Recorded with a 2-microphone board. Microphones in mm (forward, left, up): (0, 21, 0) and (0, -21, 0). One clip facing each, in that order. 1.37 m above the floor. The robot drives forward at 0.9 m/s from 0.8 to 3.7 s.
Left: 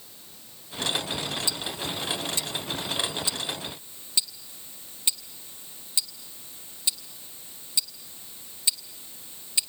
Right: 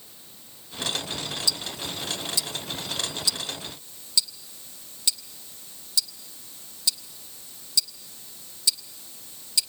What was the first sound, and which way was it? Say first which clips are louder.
Ticking: even; 35° left (ahead or behind).